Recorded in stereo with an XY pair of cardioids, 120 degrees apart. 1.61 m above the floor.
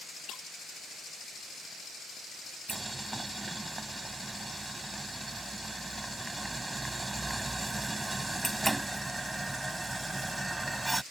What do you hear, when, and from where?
0.3 s breaking glass: 65° left
2.7 s boiling: 10° right